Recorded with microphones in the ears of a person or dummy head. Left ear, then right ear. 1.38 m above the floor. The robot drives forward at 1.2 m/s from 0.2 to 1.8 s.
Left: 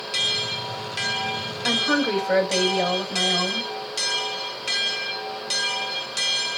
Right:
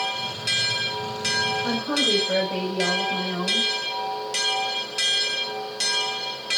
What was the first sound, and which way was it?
A woman speaking, 65° left (ahead or behind).